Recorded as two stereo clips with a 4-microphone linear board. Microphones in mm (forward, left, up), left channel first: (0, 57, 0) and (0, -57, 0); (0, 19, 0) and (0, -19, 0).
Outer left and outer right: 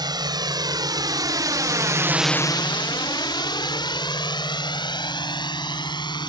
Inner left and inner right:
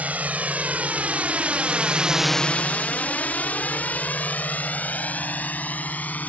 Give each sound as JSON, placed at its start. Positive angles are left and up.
{"t": 0.0, "sound": "a drone", "side_deg": -40}